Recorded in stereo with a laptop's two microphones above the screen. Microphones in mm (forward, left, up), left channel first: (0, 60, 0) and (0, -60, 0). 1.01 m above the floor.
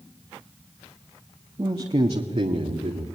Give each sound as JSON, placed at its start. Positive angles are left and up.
{"t": 1.6, "sound": "a man speaking", "side_deg": -45, "distance_m": 1.7}